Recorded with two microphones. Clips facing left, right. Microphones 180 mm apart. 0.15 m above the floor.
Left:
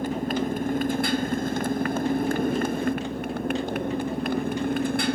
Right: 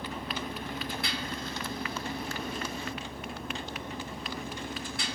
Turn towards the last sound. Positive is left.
turn(degrees=60)  # may be behind; listen again after turning